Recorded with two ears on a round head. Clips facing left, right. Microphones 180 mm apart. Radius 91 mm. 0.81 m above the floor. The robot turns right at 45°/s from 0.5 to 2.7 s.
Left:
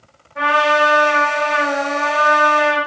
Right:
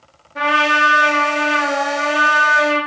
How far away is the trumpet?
About 0.9 m.